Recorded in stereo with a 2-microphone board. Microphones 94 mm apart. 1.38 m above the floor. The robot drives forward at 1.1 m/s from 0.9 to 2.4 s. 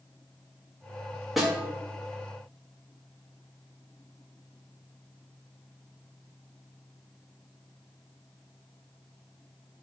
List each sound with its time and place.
1.4 s a snare drum: centre (ahead or behind), 0.9 m